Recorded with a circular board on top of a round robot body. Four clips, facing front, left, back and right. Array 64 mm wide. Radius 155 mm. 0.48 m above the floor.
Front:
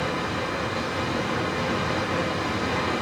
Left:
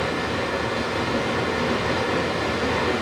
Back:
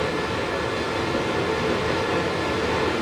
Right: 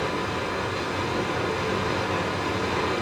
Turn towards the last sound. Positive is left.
turn(degrees=125)